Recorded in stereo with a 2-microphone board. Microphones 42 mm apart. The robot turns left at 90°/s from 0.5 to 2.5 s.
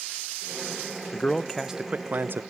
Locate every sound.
1.1 s a man speaking: 40° left, 0.6 m; by 2.4 s 80° right, 0.6 m